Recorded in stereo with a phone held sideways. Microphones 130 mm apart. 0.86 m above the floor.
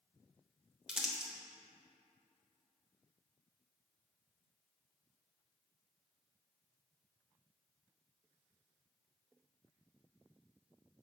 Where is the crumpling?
5° right (ahead or behind), 1.0 m.